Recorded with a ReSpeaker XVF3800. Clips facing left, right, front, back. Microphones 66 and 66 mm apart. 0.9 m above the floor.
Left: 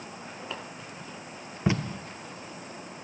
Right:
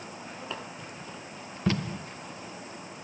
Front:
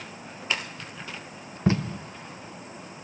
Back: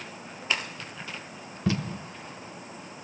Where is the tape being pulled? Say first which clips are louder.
Left 1 dB, front 4 dB; 30° left, 0.5 m.